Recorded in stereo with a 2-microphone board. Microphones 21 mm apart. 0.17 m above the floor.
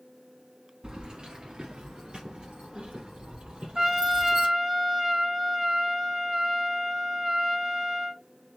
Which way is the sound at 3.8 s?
20° right (ahead or behind).